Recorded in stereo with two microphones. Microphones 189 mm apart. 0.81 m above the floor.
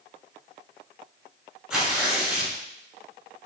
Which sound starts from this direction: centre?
Tearing paper, at 1.7 s.